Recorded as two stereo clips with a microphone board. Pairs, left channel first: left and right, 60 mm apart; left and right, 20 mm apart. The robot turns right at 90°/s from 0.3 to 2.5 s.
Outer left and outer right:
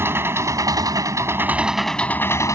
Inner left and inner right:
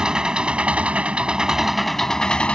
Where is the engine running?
140° right; by 2.5 s 60° left.